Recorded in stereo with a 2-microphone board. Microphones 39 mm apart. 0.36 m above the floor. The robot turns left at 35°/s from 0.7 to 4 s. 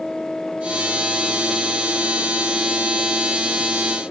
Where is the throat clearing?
I don't hear throat clearing.